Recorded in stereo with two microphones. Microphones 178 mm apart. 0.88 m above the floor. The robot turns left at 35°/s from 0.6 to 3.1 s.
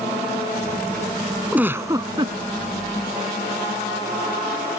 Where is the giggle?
5° right (ahead or behind); by 2.4 s 30° right (ahead or behind).